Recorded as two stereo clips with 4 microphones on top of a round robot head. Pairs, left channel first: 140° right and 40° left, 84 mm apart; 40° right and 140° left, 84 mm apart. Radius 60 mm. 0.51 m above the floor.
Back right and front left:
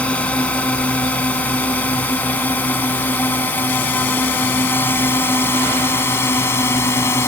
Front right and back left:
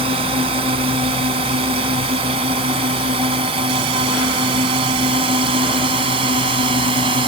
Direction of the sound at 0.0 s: 145° left.